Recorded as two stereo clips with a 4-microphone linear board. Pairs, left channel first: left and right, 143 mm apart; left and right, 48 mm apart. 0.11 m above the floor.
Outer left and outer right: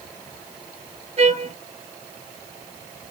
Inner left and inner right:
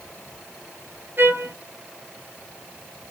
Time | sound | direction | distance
1.2 | a trumpet | 55° right (ahead or behind) | 0.8 m